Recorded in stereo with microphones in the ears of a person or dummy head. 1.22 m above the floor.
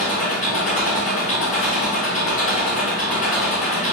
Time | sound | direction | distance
0.0 | an engine running | 25° left (ahead or behind) | 1.6 m